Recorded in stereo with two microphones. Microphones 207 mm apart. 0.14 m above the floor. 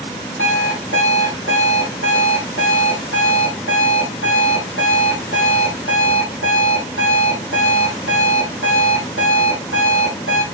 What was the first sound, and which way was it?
An alarm clock, 75° left (ahead or behind).